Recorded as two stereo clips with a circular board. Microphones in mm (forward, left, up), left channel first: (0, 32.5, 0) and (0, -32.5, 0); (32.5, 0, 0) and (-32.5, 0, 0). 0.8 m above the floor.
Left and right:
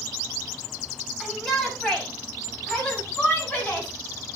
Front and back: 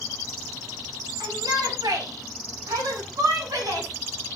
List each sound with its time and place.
1.2 s a shout: 175° left, 5 m; by 3.9 s 160° left, 7.5 m